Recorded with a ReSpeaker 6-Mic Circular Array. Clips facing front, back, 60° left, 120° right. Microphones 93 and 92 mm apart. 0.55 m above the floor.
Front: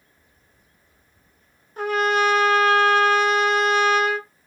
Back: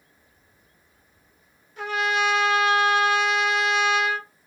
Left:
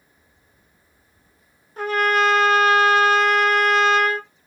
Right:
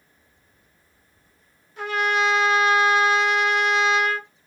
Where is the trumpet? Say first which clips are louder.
Front 4 dB, left 3 dB; 30° left, 0.7 m.